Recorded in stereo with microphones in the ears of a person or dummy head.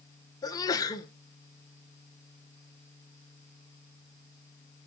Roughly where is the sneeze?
Left.